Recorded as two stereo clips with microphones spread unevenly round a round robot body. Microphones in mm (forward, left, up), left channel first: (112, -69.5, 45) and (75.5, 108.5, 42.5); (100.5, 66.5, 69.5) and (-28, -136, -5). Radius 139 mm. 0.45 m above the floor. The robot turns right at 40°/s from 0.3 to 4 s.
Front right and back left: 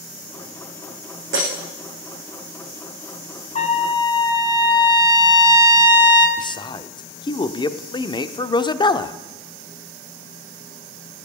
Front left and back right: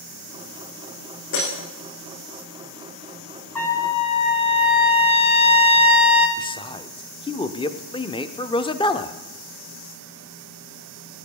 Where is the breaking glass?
105° left, 6.5 m; by 1.5 s 115° left, 6.5 m.